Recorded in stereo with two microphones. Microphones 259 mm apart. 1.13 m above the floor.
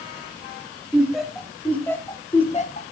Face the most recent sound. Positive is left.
turn(degrees=40)  # may be behind; listen again after turning